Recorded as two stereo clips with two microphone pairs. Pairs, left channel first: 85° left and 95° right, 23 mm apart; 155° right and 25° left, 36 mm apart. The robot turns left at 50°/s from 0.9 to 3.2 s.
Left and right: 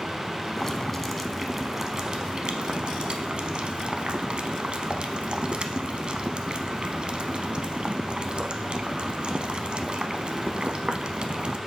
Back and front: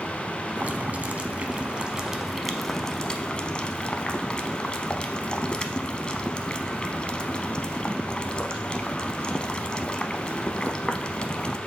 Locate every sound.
0.6 s boiling: 15° left, 0.6 m; by 11.6 s 100° right, 0.6 m